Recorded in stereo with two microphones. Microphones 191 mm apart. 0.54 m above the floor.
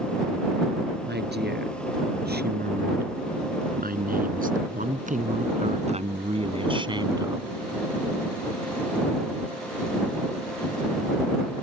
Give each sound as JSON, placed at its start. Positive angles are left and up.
{"t": 1.0, "sound": "a woman speaking", "side_deg": -60}